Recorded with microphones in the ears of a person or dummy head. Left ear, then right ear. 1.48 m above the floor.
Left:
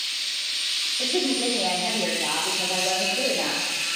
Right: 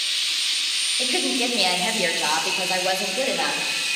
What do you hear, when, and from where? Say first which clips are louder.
1.0 s a woman speaking: right 2 dB; 30° right (ahead or behind), 1.9 m; by 3.6 s 70° right (ahead or behind), 2 m